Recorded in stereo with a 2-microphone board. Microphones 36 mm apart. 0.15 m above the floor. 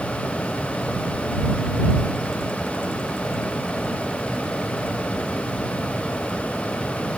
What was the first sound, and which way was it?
Only background noise.